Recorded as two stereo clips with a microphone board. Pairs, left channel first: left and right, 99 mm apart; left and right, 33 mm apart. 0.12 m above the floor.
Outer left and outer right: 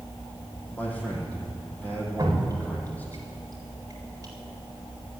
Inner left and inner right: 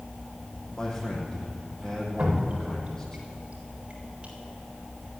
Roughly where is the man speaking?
Centre.